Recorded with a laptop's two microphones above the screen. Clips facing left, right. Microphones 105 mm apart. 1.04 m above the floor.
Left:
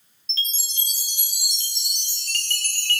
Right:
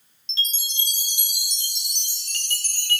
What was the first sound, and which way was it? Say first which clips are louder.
A chime: right 2 dB; 15° right (ahead or behind).